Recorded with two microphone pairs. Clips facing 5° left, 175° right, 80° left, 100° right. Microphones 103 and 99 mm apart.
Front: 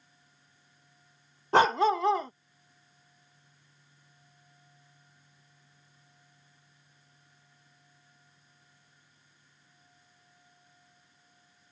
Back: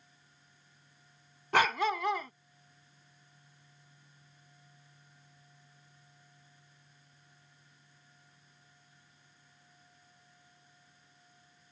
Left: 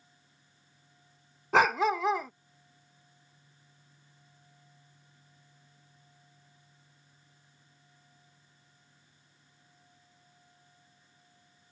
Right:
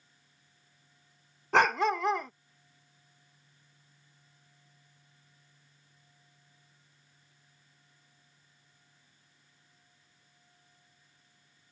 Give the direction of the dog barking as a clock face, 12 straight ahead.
12 o'clock.